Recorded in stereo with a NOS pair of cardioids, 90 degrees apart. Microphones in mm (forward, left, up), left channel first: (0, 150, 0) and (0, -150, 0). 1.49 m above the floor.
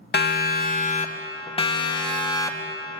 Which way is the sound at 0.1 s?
35° left.